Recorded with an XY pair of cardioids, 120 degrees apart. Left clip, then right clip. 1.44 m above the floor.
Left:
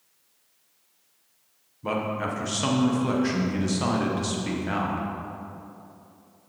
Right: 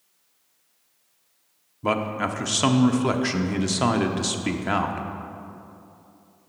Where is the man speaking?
40° right, 0.8 m.